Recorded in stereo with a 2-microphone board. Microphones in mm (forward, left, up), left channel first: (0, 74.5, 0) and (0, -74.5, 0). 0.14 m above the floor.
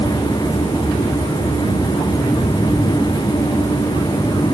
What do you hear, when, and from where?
Only background noise.